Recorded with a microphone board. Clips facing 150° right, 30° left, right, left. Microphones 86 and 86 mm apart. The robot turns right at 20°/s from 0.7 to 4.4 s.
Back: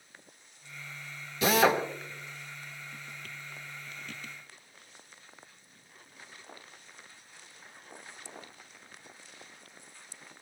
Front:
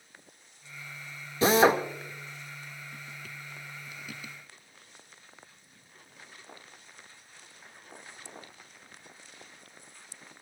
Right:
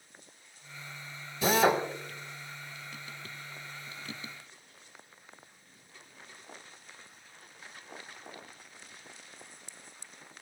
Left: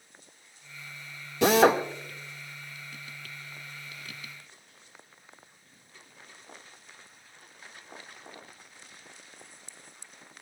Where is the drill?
85° left, 2.0 m; by 1.8 s 90° left, 2.0 m.